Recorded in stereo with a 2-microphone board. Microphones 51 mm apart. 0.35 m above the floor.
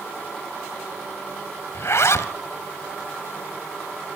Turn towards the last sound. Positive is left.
turn(degrees=65)  # may be behind; listen again after turning